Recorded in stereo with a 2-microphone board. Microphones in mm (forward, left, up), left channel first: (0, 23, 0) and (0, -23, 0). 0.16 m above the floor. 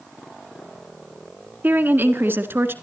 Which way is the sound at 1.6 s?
40° right (ahead or behind).